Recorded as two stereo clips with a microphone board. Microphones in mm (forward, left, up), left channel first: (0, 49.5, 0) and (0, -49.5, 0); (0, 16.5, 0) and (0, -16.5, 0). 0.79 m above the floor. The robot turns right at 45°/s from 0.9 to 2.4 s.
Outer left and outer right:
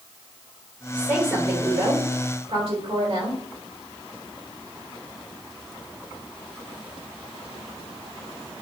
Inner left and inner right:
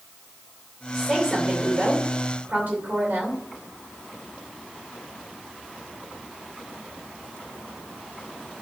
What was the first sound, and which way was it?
A woman speaking, 170° right.